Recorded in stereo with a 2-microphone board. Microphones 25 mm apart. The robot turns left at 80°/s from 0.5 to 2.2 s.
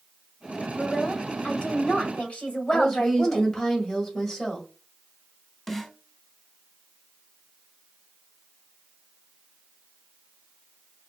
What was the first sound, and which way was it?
A woman speaking, 175° left.